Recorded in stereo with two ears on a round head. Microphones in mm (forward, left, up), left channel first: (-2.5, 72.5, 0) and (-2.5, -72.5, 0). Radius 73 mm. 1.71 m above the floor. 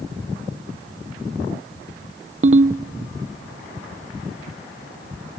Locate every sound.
2.4 s a ringtone: 45° right (ahead or behind), 0.8 m